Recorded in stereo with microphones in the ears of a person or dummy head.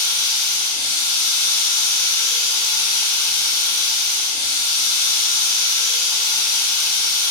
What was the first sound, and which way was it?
Running water, 15° left (ahead or behind).